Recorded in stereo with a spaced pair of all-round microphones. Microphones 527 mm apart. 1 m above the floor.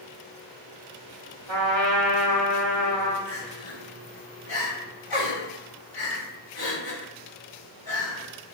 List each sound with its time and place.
1.5 s a trumpet: 60° right (ahead or behind), 0.9 m
3.3 s crying: 60° left (ahead or behind), 1.6 m